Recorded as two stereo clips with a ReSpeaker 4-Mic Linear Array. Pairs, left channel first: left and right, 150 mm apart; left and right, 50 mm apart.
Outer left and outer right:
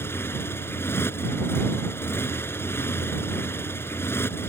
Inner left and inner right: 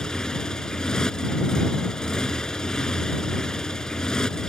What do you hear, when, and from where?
0.0 s a motorcycle: 15° left (ahead or behind)